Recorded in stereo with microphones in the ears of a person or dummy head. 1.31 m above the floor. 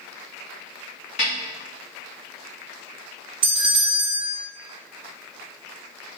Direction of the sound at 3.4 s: 20° right (ahead or behind).